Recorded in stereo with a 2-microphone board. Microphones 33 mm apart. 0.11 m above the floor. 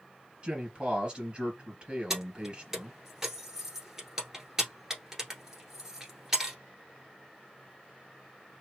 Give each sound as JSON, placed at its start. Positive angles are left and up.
{"t": 0.4, "sound": "a man speaking", "side_deg": -30, "distance_m": 2.5}
{"t": 2.1, "sound": "keys jangling", "side_deg": -15, "distance_m": 1.3}